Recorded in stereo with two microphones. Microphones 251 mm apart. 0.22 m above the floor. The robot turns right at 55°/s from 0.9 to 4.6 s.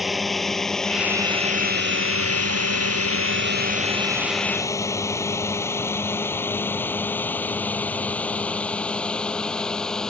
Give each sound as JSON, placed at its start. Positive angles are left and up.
{"t": 0.0, "sound": "a drone", "side_deg": 0}